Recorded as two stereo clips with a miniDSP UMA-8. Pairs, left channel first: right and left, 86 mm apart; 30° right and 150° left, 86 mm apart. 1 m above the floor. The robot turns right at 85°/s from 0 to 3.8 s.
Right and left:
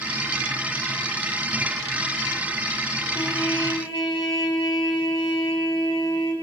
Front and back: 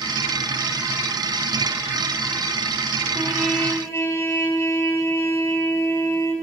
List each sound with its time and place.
3.1 s a trumpet: 140° right, 1.5 m; by 6.3 s 85° right, 1.5 m